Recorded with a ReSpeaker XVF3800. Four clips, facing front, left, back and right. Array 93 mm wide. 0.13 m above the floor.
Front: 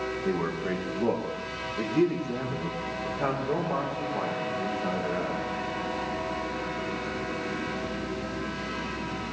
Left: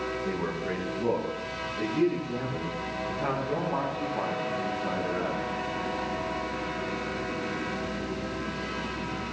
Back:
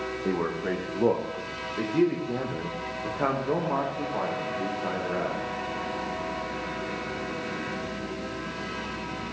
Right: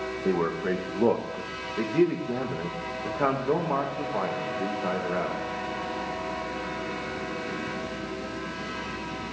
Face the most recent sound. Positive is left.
turn(degrees=-120)